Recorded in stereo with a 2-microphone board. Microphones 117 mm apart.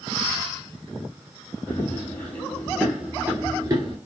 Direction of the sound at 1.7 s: 20° left (ahead or behind).